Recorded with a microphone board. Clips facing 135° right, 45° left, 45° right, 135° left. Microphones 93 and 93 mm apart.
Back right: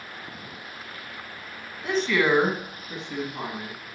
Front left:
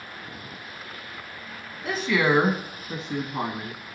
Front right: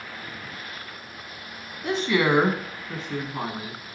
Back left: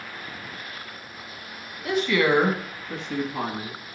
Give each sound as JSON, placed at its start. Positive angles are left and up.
{"t": 1.8, "sound": "a woman speaking", "azimuth_deg": -40, "distance_m": 1.2}